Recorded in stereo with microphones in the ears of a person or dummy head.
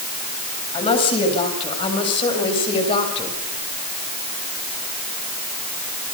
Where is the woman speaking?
30° left (ahead or behind), 9 m.